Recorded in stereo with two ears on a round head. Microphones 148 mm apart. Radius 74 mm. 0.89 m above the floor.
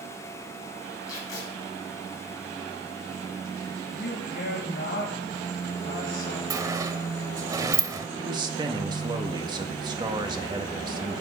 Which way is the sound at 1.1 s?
20° left (ahead or behind).